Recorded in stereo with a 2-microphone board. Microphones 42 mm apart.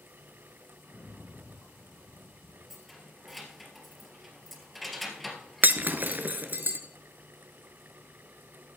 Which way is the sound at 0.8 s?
55° left (ahead or behind).